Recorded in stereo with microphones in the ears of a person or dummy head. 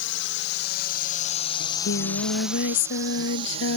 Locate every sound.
0.0 s a drone: 65° left (ahead or behind); by 3.8 s 30° right (ahead or behind)
1.6 s singing: 65° left (ahead or behind)